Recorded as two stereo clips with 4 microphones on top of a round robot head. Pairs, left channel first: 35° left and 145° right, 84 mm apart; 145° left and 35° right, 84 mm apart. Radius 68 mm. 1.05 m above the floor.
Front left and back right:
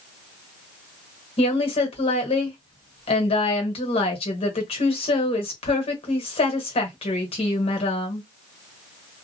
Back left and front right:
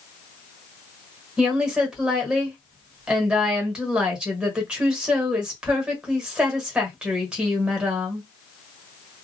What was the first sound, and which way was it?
A woman speaking, 45° left.